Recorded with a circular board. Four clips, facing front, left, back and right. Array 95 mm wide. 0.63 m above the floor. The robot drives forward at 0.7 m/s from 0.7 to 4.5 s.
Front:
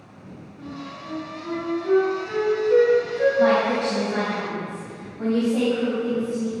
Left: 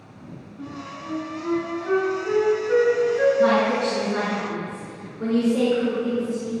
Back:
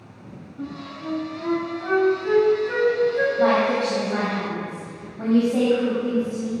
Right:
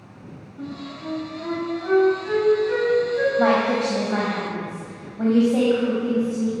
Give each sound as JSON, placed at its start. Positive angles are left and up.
{"t": 0.6, "sound": "a flute", "azimuth_deg": -125, "distance_m": 3.5}
{"t": 3.4, "sound": "a woman speaking", "azimuth_deg": -95, "distance_m": 4.0}